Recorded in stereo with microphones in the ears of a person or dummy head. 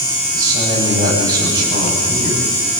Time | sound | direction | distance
0.3 | a man speaking | 25° right (ahead or behind) | 9.5 m